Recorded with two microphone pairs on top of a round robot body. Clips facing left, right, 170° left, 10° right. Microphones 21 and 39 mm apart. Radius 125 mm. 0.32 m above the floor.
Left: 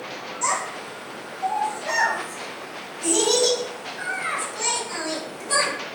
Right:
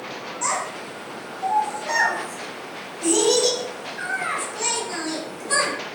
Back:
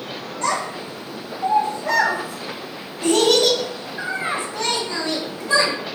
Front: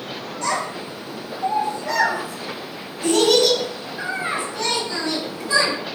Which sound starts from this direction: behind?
A child speaking, at 0.4 s.